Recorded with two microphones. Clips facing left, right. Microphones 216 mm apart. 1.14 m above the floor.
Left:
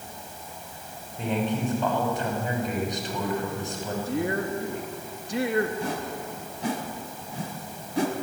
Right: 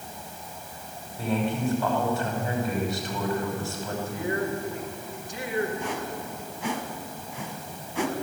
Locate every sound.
1.2 s a man speaking: 20° left (ahead or behind), 5.5 m
4.1 s a woman speaking: 70° left (ahead or behind), 2 m
5.8 s a whoosh: 40° left (ahead or behind), 1.9 m